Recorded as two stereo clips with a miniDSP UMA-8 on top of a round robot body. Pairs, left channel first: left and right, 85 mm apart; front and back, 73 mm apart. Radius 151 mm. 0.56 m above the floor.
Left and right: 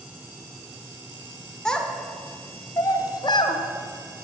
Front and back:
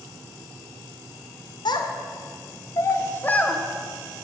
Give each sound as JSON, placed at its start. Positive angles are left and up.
{"t": 1.6, "sound": "a child speaking", "azimuth_deg": 5, "distance_m": 1.7}